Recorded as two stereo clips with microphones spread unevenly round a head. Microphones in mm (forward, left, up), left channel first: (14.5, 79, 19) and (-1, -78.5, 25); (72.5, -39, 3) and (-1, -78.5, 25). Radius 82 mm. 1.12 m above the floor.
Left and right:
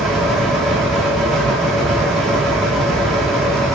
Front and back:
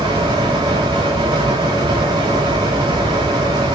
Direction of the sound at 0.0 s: 175° left.